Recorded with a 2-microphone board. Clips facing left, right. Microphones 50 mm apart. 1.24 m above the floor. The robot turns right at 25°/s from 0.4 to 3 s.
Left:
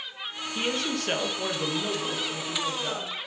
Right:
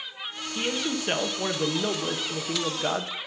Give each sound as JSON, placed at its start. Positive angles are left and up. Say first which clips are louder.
{"t": 0.6, "sound": "a man speaking", "louder": "even", "azimuth_deg": 175, "distance_m": 1.1}